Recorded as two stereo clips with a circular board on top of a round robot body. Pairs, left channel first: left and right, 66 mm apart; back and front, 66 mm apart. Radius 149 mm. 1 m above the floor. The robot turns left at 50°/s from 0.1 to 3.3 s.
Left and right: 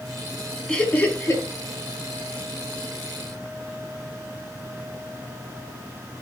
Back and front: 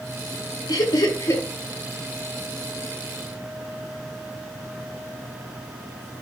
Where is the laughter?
170° left, 3 m; by 1.4 s 135° left, 3 m.